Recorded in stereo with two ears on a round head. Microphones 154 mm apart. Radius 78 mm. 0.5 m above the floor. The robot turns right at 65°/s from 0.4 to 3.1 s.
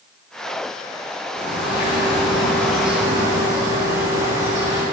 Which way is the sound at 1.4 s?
85° left.